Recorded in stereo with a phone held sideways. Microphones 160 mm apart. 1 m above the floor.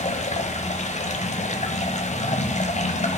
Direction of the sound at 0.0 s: 45° left (ahead or behind).